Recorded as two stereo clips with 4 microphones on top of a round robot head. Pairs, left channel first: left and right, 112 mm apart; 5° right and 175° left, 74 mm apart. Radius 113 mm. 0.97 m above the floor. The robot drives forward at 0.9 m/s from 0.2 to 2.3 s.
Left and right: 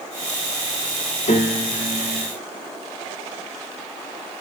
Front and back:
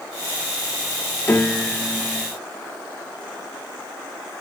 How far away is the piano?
About 2 m.